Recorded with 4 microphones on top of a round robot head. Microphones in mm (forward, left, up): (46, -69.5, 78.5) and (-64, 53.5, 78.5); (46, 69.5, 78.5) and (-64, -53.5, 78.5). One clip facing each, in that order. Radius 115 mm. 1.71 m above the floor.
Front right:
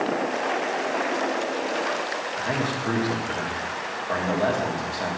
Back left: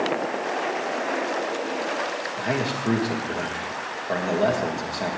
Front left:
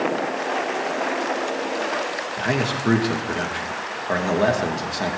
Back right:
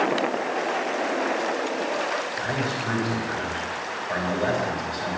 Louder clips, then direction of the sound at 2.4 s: Back left 2 dB, front left 4 dB; 60° left.